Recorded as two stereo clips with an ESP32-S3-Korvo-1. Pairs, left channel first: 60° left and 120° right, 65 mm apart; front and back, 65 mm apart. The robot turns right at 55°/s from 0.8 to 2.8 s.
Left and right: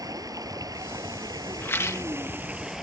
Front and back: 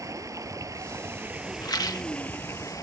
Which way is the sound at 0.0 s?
145° right.